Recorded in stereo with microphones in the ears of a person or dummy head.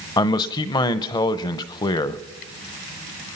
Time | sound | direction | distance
0.2 | a man speaking | 20° left (ahead or behind) | 0.8 m